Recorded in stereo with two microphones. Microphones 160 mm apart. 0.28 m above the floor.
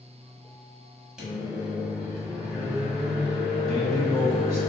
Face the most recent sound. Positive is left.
turn(degrees=-20)  # may be behind; listen again after turning